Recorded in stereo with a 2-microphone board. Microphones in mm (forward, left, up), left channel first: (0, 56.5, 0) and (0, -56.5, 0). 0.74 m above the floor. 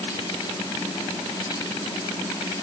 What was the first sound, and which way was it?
Only background noise.